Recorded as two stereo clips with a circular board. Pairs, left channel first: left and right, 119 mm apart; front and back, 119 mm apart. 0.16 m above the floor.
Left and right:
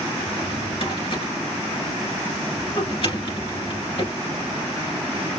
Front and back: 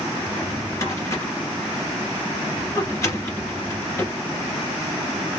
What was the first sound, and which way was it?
A drawer, 60° left.